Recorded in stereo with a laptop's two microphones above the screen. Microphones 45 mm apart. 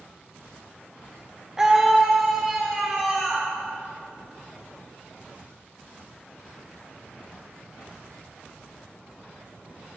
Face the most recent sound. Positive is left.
turn(degrees=-5)  # may be behind; listen again after turning